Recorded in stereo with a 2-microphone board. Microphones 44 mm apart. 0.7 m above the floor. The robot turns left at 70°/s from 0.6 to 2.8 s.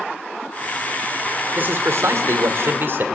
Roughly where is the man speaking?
Ahead right.